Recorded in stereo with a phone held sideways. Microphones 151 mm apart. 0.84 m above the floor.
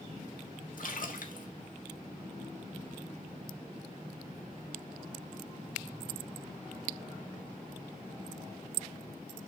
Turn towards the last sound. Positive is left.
turn(degrees=65)  # may be behind; listen again after turning